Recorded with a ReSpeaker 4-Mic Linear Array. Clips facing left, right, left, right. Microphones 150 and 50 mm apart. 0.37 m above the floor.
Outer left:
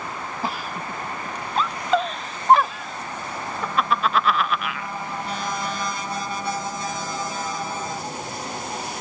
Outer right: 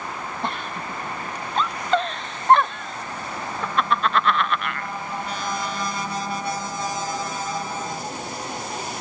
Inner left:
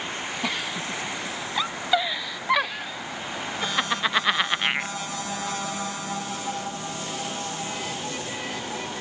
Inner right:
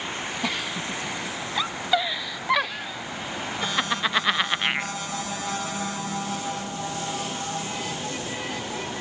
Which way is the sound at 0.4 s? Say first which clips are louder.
Outer left 1 dB, even; 5° left (ahead or behind).